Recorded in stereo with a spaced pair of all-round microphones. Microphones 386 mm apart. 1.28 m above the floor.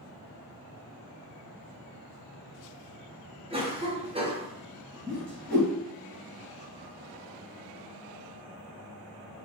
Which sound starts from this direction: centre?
A cough, at 3.5 s.